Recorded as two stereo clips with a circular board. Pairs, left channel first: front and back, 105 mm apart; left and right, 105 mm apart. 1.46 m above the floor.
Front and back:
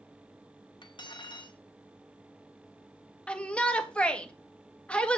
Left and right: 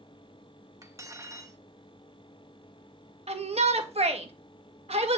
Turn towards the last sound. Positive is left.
turn(degrees=-80)